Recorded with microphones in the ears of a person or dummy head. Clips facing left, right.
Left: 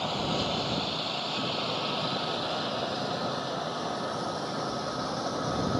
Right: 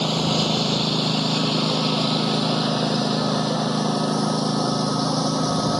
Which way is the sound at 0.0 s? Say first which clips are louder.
Right 8 dB; 65° right (ahead or behind).